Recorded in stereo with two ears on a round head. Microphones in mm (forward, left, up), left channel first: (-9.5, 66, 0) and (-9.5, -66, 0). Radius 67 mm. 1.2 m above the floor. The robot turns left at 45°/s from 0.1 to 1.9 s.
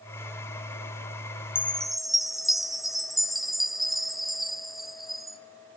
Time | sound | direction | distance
1.6 | a chime | 15° left (ahead or behind) | 0.5 m